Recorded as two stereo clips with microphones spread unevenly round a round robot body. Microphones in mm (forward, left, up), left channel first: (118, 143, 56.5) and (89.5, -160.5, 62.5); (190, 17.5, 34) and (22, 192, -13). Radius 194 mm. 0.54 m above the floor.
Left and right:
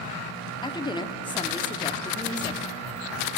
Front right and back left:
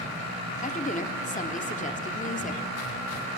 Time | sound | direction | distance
0.6 | a woman speaking | 15° left | 1.4 m